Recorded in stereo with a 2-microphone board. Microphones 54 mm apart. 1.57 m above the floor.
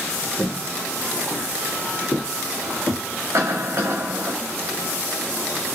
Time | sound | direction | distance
0.4 | footsteps | 40° left (ahead or behind) | 2.0 m
3.3 | a cough | 60° right (ahead or behind) | 2 m